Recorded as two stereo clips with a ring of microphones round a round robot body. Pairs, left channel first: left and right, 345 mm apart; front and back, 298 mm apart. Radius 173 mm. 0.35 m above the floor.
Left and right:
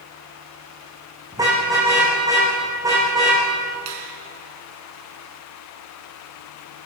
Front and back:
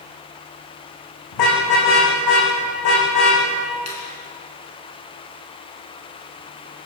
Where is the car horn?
10° right, 9 m.